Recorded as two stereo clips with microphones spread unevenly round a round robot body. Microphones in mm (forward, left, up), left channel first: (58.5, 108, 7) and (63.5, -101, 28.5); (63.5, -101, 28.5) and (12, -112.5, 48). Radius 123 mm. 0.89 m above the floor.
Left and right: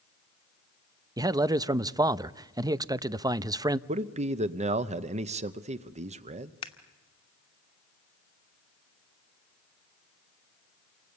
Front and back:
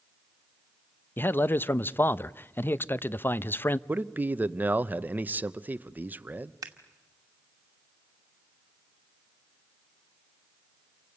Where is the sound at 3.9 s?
105° right, 0.8 m.